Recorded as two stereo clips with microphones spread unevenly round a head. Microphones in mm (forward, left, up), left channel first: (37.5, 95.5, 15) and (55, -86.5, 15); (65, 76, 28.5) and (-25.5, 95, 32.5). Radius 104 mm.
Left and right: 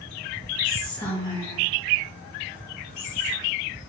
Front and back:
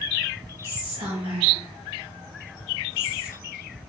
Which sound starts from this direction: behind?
Whispering, at 0.6 s.